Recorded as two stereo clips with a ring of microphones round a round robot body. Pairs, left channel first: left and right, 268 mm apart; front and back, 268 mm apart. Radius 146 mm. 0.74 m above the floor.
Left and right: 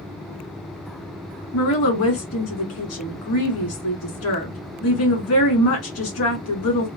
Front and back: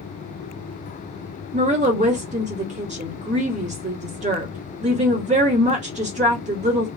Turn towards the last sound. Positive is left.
turn(degrees=120)